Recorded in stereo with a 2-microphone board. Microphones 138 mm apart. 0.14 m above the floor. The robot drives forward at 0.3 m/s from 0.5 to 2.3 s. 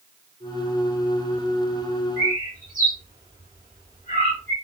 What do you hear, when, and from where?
2.2 s a bird: 80° right, 2.5 m